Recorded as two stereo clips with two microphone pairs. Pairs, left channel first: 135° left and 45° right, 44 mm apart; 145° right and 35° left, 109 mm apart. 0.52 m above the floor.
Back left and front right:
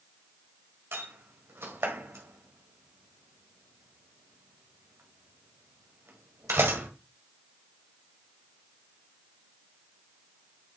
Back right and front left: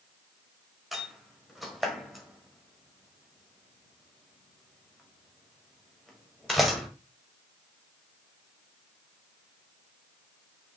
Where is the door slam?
55° right, 1.8 m.